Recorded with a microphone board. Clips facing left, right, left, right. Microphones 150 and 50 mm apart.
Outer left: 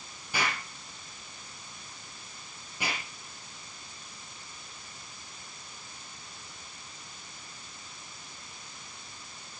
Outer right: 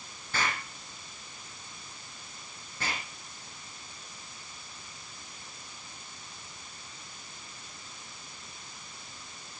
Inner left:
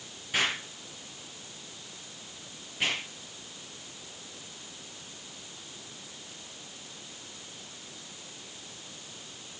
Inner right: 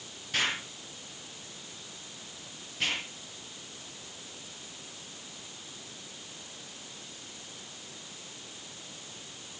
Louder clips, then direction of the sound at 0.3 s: Even, inner left 1 dB; 15° left (ahead or behind).